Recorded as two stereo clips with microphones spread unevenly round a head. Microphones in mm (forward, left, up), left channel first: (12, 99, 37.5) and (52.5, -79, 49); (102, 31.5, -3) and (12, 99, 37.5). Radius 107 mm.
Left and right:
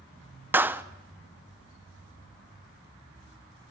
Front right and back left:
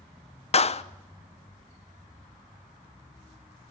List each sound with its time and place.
0.5 s a clap: 5° left, 0.8 m